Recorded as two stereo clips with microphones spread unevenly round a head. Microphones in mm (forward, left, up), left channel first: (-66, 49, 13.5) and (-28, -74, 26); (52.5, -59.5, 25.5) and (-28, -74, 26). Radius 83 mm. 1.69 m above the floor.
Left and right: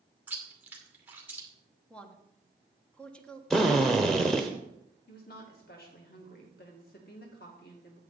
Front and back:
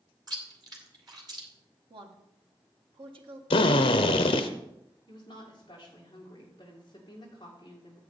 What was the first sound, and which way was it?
Chewing, 145° right.